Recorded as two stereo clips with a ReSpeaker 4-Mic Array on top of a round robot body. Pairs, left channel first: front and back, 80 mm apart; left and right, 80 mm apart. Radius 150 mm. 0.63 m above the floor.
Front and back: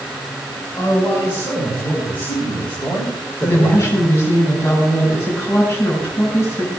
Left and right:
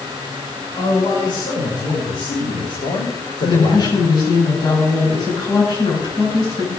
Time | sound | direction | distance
0.8 | a man speaking | 65° left | 6.5 m
3.4 | a woman speaking | 60° left | 8 m